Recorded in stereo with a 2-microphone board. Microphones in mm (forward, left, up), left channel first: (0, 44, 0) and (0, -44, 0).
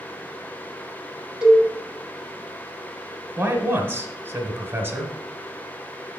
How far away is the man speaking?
About 1.1 m.